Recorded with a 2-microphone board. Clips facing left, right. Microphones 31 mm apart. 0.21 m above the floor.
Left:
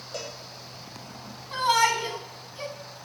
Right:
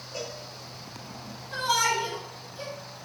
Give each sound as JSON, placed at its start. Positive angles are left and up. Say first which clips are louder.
{"t": 0.1, "sound": "a cowbell", "louder": "even", "side_deg": 65, "distance_m": 2.5}
{"t": 1.5, "sound": "a shout", "louder": "left 3 dB", "side_deg": 45, "distance_m": 1.4}